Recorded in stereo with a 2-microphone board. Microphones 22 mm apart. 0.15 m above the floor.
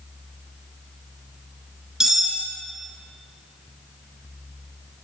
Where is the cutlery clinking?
25° right (ahead or behind), 1.5 m.